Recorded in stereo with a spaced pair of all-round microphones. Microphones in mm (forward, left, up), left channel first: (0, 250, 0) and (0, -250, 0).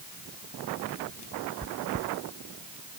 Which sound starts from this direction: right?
Chewing, at 1.6 s.